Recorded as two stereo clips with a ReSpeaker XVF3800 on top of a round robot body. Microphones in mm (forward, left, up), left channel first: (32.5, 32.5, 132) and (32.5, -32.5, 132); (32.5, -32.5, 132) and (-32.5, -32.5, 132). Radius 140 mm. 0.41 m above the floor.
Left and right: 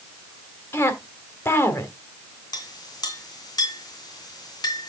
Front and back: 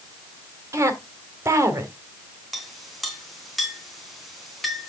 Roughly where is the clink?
Left.